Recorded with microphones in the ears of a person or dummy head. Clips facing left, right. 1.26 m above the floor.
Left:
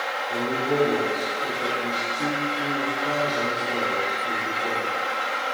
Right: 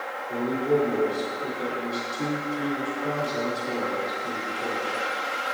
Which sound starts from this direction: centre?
A man speaking, at 0.3 s.